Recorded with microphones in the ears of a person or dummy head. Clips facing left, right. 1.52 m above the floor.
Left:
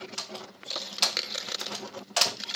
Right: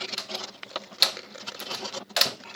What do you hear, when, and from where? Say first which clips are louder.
0.2 s a door slam: right 2 dB; 25° right (ahead or behind), 1.0 m